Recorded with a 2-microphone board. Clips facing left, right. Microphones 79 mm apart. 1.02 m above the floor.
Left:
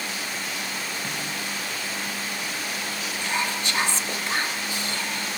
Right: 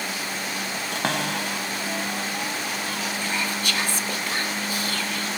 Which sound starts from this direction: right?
A cupboard door, at 0.9 s.